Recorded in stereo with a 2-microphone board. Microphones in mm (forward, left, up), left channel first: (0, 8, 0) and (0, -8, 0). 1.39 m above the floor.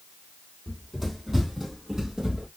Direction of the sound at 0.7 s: 5° right (ahead or behind).